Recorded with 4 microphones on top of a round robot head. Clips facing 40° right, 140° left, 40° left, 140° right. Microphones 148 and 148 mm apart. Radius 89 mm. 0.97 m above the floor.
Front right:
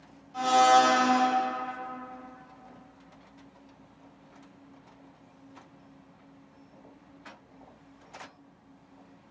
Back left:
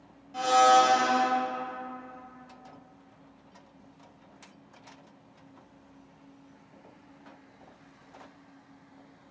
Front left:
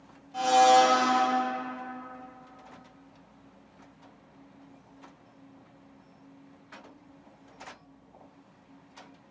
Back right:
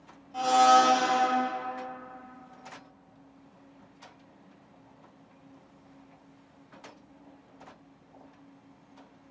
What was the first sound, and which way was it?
A blender, 125° left.